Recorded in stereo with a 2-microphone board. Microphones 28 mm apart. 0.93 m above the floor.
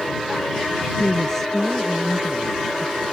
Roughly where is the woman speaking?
Centre.